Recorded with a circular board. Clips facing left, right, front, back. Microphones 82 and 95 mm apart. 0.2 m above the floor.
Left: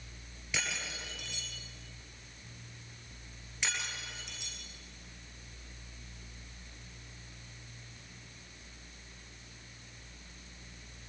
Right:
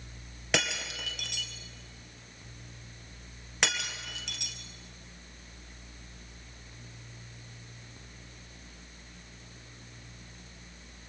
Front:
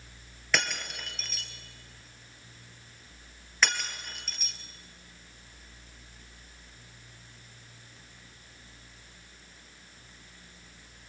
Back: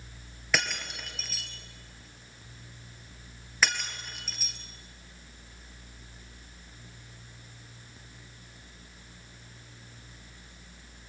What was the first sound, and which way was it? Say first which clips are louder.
Breaking glass: right 7 dB, even; 90° right.